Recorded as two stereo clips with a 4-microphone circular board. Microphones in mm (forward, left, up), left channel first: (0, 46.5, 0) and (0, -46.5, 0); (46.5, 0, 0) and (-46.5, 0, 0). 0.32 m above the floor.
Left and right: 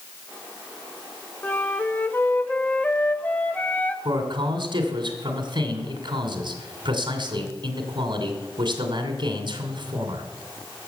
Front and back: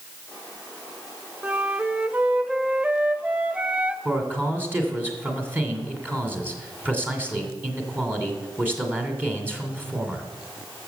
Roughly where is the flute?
Behind left.